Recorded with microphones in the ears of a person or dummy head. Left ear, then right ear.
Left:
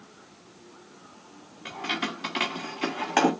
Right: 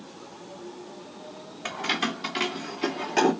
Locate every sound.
1.6 s keys jangling: 30° right (ahead or behind), 0.8 m; by 3.3 s 50° left (ahead or behind), 1.6 m